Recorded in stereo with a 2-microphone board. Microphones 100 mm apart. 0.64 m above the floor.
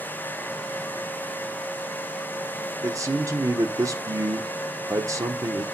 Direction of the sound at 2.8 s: 30° right (ahead or behind).